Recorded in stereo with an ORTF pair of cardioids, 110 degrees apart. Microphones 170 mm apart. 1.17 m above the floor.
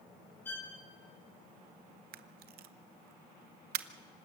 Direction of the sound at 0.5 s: 10° left.